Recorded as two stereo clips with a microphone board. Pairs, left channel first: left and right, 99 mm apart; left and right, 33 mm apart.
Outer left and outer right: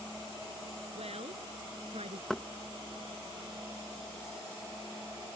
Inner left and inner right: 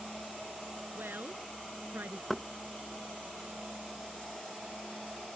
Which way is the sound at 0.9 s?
85° right.